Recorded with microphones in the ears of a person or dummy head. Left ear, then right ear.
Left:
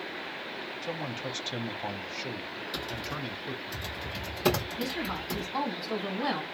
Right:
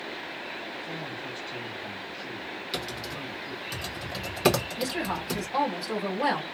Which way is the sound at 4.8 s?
40° right (ahead or behind).